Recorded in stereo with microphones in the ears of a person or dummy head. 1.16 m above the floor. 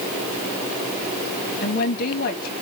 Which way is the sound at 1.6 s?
50° left (ahead or behind).